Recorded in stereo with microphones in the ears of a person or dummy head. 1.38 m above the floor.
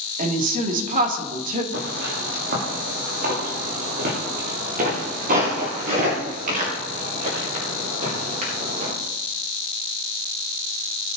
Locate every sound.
0.2 s a woman speaking: 40° right (ahead or behind), 2.5 m
1.7 s footsteps: 55° right (ahead or behind), 7 m; by 8.9 s 35° right (ahead or behind), 11.5 m